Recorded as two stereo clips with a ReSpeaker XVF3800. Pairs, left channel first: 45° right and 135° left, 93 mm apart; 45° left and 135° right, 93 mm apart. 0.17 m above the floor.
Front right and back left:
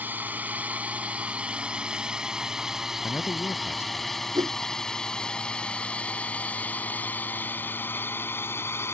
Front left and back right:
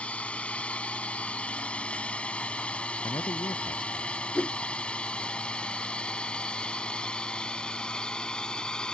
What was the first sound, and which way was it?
A drone, 100° left.